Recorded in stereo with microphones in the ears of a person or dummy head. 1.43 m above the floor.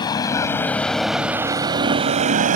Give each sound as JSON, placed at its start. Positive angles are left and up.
{"t": 0.0, "sound": "a vehicle", "side_deg": 25}